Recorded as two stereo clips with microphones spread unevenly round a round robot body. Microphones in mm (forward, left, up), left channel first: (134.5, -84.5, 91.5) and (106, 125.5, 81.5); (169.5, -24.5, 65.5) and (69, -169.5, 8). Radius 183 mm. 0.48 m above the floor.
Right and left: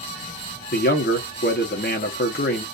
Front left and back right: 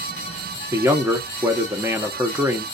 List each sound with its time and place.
0.7 s a man speaking: 80° right, 1.0 m